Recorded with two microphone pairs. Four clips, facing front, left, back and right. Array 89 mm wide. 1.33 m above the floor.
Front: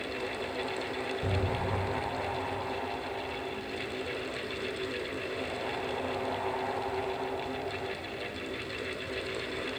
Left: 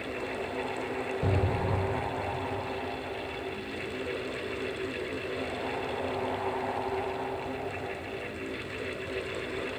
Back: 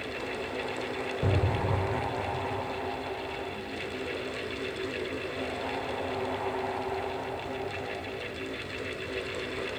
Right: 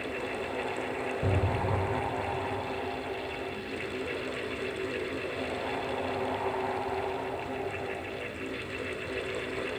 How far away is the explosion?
About 1.3 m.